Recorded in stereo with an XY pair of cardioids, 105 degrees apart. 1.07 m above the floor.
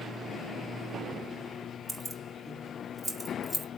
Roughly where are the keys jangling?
Ahead.